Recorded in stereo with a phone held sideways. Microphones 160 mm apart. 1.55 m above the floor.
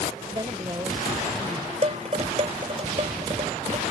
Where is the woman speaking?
25° right (ahead or behind).